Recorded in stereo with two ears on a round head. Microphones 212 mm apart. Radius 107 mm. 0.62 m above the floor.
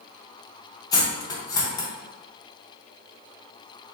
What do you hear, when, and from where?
0.9 s cutlery clinking: 15° left (ahead or behind), 0.6 m